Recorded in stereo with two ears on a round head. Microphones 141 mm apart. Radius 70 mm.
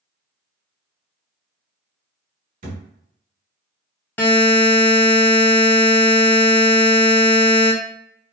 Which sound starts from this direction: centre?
A buzzer, at 4.2 s.